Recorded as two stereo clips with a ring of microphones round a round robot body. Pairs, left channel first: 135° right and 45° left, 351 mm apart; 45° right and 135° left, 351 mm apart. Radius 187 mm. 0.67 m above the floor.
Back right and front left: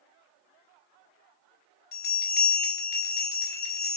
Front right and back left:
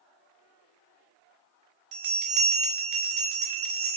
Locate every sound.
1.9 s a bell: 160° left, 2.0 m